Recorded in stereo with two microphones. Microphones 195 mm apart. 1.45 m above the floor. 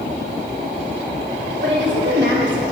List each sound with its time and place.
1.6 s a woman speaking: 70° right (ahead or behind), 2 m; by 2.6 s 80° right, 1.6 m